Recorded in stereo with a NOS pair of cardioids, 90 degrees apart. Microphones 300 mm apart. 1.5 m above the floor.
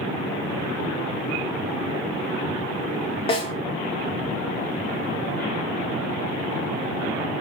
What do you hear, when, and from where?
3.3 s a snare drum: 20° left, 1.7 m